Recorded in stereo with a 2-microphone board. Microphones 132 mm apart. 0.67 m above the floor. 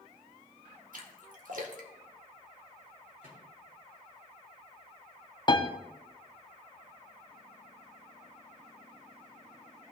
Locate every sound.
0.9 s a splash: 75° right (ahead or behind), 1.4 m
3.2 s a microwave: 85° right, 3.5 m
5.5 s a piano: 35° left (ahead or behind), 0.7 m